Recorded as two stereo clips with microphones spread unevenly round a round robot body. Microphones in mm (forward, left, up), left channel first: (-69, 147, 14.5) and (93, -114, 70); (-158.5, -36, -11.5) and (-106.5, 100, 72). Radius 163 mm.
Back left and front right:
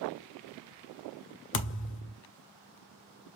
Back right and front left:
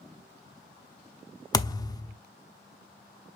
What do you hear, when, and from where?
1.5 s a thud: 175° left, 0.7 m